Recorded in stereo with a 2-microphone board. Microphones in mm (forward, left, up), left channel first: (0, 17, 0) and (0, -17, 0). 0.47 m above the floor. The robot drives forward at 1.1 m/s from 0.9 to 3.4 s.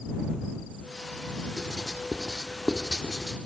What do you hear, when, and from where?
1.6 s writing: 10° right (ahead or behind), 1.8 m; by 3.4 s 15° right (ahead or behind), 1.6 m